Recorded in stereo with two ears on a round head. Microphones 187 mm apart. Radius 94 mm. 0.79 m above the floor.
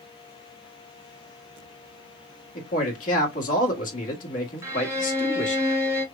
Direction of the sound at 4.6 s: 15° right (ahead or behind).